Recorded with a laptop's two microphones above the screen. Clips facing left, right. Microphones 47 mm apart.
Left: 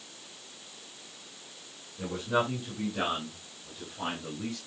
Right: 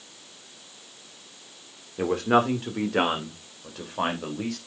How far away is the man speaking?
About 2.5 m.